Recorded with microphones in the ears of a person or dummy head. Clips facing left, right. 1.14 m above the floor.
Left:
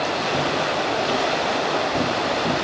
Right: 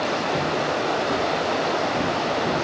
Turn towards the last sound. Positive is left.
turn(degrees=50)  # may be behind; listen again after turning